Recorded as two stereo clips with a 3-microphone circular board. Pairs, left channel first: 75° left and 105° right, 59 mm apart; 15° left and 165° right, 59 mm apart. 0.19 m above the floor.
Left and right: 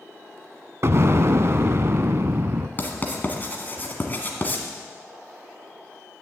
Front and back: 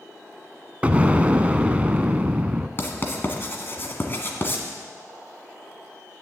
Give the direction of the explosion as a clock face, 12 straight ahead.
4 o'clock.